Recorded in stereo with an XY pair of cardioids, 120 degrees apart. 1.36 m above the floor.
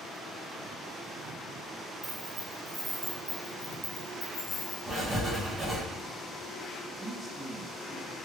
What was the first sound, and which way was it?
Keys jangling, 40° right.